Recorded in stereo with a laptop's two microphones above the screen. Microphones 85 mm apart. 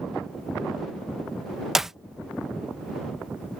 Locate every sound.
1.8 s a clap: 5° right (ahead or behind)